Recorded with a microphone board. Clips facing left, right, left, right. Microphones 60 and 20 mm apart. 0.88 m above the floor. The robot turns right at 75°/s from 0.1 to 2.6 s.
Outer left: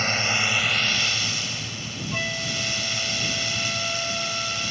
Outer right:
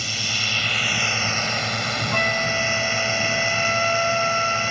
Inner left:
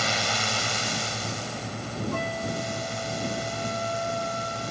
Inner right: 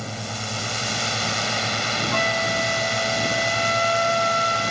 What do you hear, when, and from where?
0.0 s a drone: 135° left; by 4.7 s 40° right
2.1 s a flute: 145° right; by 4.7 s 110° right